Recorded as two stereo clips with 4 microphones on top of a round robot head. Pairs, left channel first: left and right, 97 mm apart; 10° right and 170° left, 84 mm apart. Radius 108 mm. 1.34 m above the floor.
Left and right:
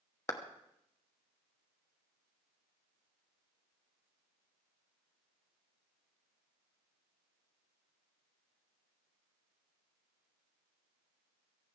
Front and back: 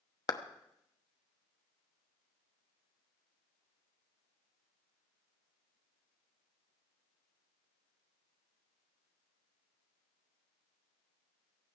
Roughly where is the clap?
Ahead left.